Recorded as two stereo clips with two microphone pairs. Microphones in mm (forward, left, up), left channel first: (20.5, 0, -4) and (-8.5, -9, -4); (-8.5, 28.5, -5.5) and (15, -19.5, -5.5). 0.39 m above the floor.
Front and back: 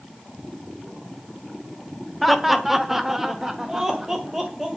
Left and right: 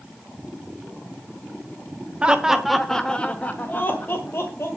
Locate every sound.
2.2 s laughter: 70° right, 1.2 m; by 4.7 s 130° left, 2 m